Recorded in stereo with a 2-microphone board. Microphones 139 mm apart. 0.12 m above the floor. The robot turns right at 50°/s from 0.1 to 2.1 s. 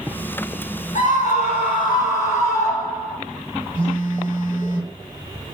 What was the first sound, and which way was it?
A scream, 100° left.